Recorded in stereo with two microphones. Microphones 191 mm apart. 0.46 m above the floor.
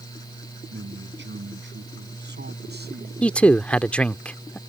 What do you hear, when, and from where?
0.7 s a man speaking: 75° right (ahead or behind); by 3.1 s 60° right (ahead or behind)
3.2 s a man speaking: 5° left (ahead or behind)